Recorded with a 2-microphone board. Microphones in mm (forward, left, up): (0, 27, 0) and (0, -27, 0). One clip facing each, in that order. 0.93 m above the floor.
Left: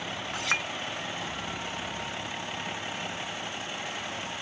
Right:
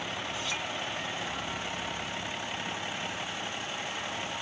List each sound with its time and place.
0.3 s a clink: 65° left (ahead or behind)